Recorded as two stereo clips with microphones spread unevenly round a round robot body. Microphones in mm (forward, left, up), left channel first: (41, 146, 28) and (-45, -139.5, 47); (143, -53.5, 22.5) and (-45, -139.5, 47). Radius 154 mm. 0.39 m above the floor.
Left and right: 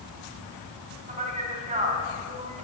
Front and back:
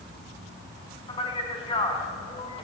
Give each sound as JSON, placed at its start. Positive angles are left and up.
{"t": 1.1, "sound": "a man speaking", "azimuth_deg": -35, "distance_m": 4.0}